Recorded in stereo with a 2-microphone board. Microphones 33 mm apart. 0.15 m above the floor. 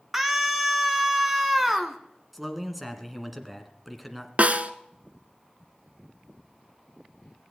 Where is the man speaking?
Centre (ahead or behind), 1.5 m.